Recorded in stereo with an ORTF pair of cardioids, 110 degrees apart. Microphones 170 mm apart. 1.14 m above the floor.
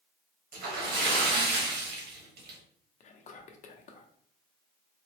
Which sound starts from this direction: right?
A splash, at 0.5 s.